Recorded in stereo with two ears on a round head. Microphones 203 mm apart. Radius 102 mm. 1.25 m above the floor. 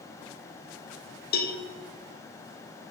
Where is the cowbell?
40° left (ahead or behind), 0.5 m.